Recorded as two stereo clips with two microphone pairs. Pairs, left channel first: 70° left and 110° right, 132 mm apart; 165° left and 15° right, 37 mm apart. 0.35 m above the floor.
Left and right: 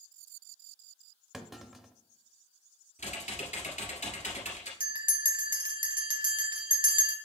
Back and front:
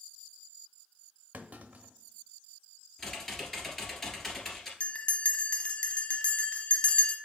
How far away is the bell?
About 1.0 m.